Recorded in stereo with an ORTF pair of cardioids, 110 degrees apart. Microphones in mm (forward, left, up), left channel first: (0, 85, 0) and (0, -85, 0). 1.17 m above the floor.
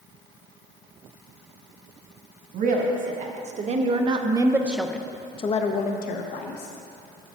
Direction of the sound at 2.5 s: 55° right.